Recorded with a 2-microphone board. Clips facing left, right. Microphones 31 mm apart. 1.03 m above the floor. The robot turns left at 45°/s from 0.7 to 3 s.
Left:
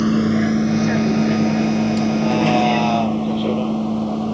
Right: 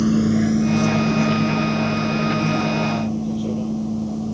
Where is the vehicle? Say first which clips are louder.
Left 1 dB; 20° left (ahead or behind); by 4.3 s 50° left (ahead or behind).